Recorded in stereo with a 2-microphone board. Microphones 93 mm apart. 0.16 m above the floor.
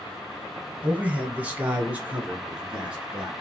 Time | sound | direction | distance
0.8 | a man speaking | 15° right (ahead or behind) | 1.4 m